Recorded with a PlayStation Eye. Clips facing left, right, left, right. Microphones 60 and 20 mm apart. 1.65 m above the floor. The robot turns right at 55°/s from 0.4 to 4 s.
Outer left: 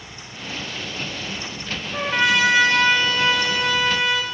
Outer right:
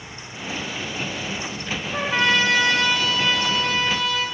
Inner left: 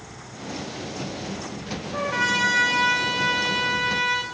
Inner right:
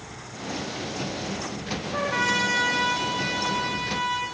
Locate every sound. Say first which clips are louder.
1.9 s a trumpet: outer left 1 dB, inner left 1 dB; 15° right, 0.7 m; by 4.2 s 100° left, 0.7 m